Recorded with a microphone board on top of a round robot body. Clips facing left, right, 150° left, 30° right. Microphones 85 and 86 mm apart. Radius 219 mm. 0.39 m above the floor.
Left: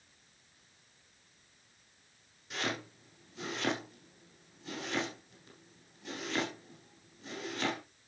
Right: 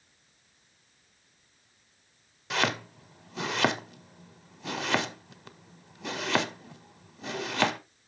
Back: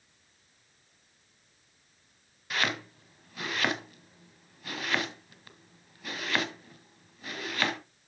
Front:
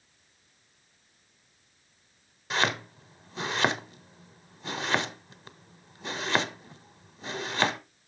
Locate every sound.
2.5 s chopping: 95° right, 0.7 m